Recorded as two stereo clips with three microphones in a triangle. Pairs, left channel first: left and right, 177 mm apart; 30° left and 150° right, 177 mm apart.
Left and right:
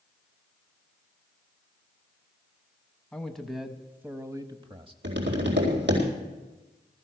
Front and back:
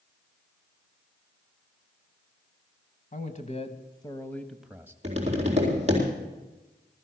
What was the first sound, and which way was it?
A man speaking, 5° left.